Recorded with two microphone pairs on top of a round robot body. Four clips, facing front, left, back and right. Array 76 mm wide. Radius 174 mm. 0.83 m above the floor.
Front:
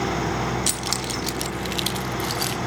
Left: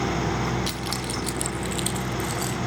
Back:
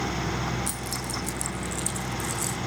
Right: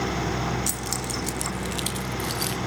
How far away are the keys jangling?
About 1.1 m.